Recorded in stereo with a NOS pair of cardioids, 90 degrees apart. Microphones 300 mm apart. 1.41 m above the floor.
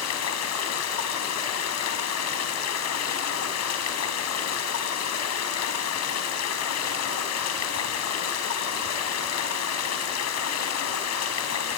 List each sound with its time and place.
0.0 s running water: 65° left, 4 m